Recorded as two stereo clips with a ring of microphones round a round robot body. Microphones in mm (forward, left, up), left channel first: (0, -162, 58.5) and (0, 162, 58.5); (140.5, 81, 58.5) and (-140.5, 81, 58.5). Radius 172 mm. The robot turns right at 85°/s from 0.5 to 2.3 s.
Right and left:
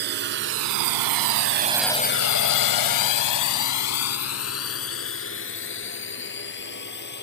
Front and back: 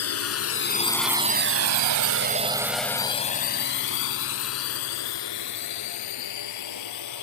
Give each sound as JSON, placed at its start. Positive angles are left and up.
{"t": 0.0, "sound": "a drone", "azimuth_deg": 30}